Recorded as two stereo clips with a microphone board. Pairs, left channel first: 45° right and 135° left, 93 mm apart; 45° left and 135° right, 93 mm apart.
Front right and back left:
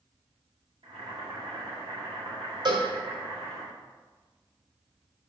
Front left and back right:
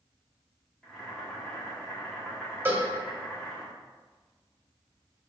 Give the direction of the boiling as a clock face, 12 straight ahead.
8 o'clock.